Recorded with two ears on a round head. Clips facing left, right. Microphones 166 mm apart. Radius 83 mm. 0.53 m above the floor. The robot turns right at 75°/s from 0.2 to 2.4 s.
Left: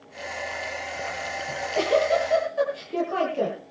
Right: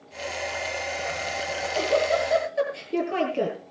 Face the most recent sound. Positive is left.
turn(degrees=-155)